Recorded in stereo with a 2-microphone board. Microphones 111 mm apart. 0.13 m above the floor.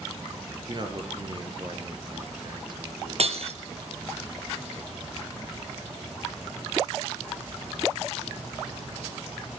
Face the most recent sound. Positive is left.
turn(degrees=-55)  # may be behind; listen again after turning